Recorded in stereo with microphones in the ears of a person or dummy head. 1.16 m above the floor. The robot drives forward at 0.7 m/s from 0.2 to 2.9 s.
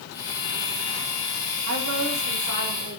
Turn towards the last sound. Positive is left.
turn(degrees=-80)